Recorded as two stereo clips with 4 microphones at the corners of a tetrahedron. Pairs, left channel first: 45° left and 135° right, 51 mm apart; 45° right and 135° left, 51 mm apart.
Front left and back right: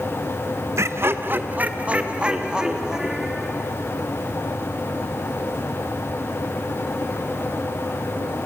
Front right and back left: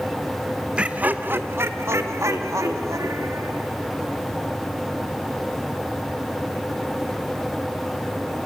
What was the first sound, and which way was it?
Laughter, 155° right.